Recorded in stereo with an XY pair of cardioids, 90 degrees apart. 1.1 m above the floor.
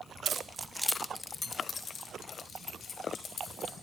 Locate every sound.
0.2 s keys jangling: 55° right, 0.6 m; by 3.7 s 70° left, 2.5 m